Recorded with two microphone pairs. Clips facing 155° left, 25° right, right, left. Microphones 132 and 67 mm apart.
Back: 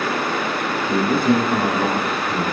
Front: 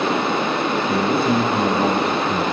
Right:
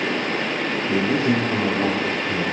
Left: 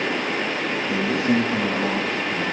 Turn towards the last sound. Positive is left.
turn(degrees=-120)